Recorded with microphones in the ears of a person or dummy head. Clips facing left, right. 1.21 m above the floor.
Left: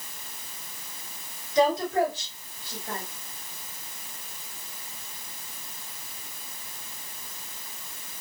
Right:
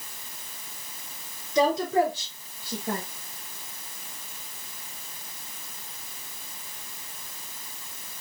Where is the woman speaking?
80° right, 4.5 m; by 3.0 s 75° right (ahead or behind), 2.0 m.